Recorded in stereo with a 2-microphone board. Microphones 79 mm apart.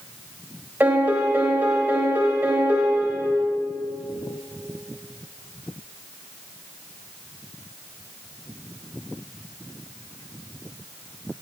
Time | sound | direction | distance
0.8 | a piano | 25° right (ahead or behind) | 1.0 m